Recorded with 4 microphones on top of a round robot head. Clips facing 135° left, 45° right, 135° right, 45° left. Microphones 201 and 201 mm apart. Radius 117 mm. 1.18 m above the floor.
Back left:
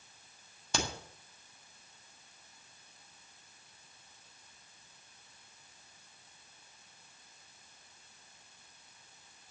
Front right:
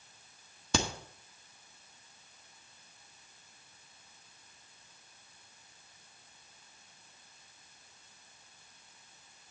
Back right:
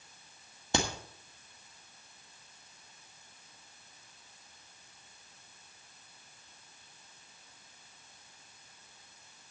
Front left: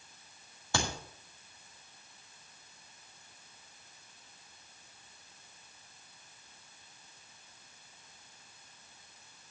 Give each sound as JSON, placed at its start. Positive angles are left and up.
{"t": 0.7, "sound": "a crack", "azimuth_deg": -60, "distance_m": 1.4}